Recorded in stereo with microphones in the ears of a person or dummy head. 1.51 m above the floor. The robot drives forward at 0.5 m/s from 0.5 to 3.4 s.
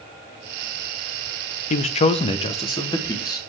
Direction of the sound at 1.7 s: 40° left (ahead or behind).